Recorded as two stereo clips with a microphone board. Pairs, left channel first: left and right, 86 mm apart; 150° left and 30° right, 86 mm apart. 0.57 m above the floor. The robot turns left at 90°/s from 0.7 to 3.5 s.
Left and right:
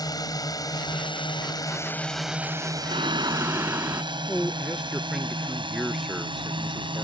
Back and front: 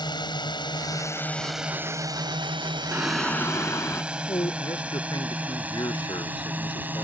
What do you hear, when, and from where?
0.0 s a drone: 125° left; by 7.0 s 95° right
2.9 s singing: 100° right; by 4.0 s 150° right
4.3 s a man speaking: straight behind